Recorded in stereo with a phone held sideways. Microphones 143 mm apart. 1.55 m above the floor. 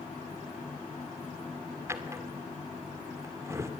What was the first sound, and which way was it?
A drawer, 20° right (ahead or behind).